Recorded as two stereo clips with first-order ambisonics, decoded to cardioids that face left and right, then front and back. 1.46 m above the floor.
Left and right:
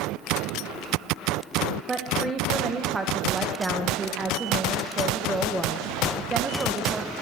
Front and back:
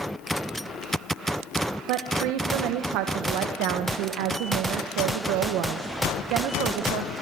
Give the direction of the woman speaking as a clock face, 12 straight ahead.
6 o'clock.